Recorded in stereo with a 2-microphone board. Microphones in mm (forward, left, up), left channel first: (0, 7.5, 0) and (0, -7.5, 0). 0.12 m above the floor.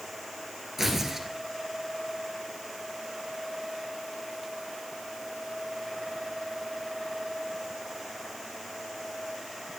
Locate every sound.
0.8 s tearing paper: 20° right (ahead or behind), 1.6 m